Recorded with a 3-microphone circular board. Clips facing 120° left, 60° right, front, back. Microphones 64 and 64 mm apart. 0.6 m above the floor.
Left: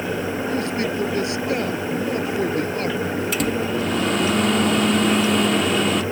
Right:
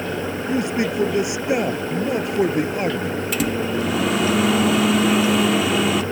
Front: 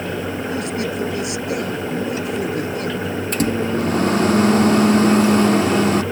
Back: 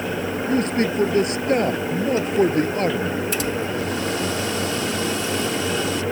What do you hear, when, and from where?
0.5 s a man speaking: 135° right
3.3 s a microwave: 25° left